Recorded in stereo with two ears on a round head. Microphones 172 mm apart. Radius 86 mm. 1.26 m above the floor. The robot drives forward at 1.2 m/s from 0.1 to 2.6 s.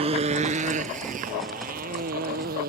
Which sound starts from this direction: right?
A motorcycle, at 0.0 s.